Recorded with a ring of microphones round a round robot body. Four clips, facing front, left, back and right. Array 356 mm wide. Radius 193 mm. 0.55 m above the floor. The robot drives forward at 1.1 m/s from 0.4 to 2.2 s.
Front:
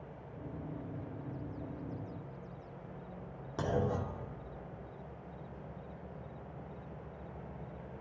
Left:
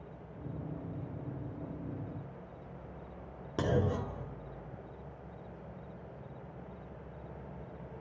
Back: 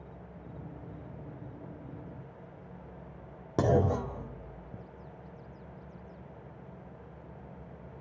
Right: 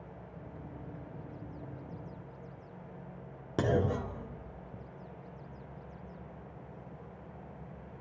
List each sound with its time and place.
3.6 s a clunk: 160° right, 2 m